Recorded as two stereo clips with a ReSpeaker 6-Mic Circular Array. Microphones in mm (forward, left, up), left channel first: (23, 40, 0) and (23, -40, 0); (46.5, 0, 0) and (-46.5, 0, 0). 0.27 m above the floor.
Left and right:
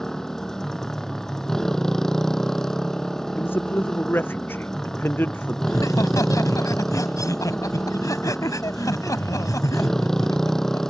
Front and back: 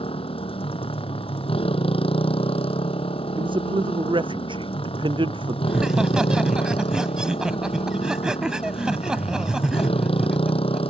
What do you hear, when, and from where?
0.0 s a motorcycle: 5° left
3.4 s a man speaking: 150° left
5.7 s laughter: 100° left